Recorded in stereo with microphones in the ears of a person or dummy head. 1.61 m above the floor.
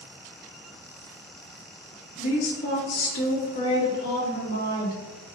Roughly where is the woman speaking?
Left.